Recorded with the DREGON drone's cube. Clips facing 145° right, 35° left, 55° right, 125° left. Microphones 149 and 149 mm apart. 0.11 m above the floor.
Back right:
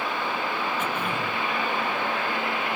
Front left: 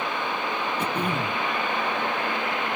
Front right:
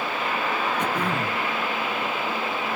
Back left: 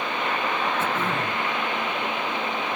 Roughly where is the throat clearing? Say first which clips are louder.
Front left 2 dB, even; ahead.